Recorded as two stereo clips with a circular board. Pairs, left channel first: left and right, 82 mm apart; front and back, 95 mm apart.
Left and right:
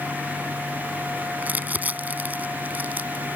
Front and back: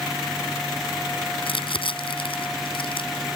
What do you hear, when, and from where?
1.4 s crumpling: 20° right